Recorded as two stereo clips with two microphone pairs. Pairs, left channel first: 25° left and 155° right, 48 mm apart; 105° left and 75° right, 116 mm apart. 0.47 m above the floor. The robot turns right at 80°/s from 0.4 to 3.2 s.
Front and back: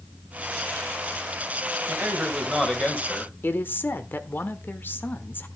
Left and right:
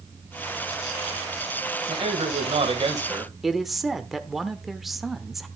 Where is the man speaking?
115° right, 3 m; by 3.3 s 10° right, 3 m.